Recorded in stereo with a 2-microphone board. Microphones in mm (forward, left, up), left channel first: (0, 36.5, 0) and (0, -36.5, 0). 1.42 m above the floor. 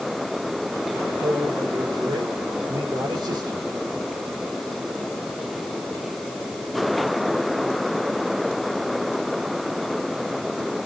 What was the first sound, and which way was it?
A man speaking, 90° right.